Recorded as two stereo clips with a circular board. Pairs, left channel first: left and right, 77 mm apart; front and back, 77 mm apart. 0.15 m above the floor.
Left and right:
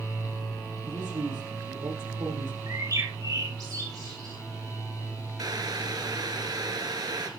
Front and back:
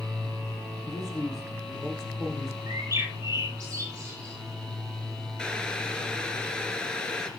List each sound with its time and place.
0.8 s a man speaking: 85° right, 10 m
2.7 s a bird: 125° right, 7 m
5.4 s boiling: 75° right, 2 m